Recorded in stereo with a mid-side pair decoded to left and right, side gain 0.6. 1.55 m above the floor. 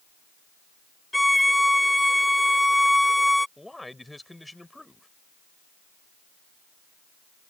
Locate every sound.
1.1 s a violin: 5° left
3.6 s a man speaking: 10° left